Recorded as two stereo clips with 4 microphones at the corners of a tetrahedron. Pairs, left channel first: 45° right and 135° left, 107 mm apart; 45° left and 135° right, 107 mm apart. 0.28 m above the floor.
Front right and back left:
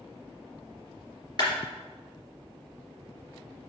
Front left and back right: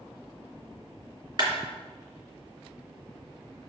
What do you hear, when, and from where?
1.4 s a clap: 90° right, 2.5 m